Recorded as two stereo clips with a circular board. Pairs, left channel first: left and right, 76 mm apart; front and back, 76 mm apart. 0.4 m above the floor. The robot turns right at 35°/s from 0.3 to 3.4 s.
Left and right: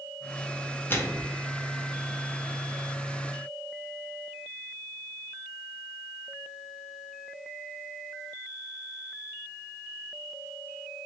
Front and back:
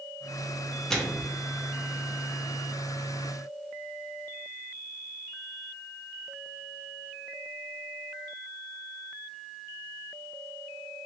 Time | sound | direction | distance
0.9 | a microwave | 75° left | 0.6 m